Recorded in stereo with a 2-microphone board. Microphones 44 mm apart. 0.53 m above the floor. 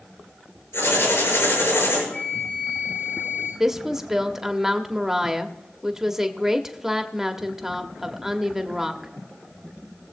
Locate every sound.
0.7 s writing: 80° left, 6.5 m
2.1 s a flute: 75° left (ahead or behind), 6.5 m
3.6 s a woman speaking: 10° right (ahead or behind), 1.0 m